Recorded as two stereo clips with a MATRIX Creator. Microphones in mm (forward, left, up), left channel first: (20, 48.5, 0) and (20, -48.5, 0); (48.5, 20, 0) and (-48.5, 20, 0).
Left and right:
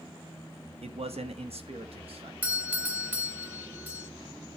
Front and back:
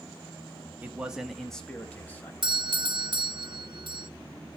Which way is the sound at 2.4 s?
160° right.